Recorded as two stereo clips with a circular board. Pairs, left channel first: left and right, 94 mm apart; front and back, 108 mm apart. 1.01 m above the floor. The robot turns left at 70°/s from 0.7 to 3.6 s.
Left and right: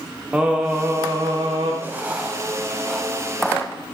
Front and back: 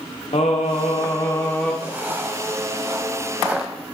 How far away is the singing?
About 1.3 m.